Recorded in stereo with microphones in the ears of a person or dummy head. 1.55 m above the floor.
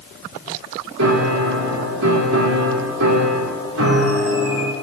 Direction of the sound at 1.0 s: 75° right (ahead or behind).